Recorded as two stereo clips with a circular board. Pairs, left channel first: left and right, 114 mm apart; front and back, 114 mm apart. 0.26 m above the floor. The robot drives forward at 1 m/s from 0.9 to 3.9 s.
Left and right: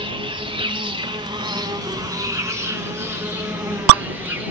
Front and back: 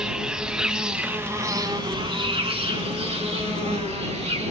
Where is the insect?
100° right, 1.3 m; by 4.5 s 160° right, 3.5 m.